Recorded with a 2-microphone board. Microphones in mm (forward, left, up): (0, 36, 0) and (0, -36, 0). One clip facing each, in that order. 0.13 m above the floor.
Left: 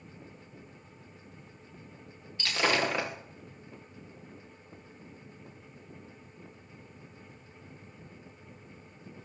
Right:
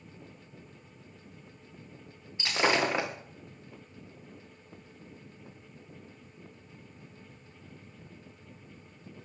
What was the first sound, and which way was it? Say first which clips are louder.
Breaking glass: right 1 dB; 20° right (ahead or behind).